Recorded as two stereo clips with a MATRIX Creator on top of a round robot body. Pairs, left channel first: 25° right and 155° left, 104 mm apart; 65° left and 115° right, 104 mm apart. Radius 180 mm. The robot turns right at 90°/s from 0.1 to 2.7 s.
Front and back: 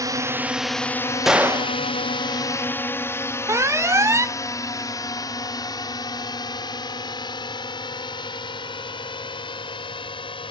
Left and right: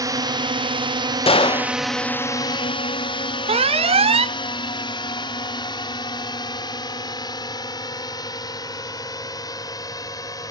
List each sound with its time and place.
0.0 s a drone: 155° right; by 10.5 s 15° left
1.3 s a gunshot: 70° left; by 1.8 s 115° left
3.5 s an alarm: 140° right